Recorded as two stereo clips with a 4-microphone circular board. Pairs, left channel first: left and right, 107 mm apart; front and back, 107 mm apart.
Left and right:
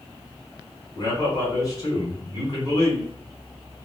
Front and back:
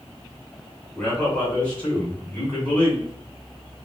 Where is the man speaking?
65° left, 1.8 m.